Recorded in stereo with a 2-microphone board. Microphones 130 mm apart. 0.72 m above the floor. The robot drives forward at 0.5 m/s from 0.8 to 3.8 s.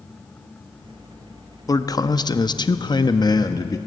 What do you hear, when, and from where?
1.7 s a man speaking: 30° left (ahead or behind), 0.9 m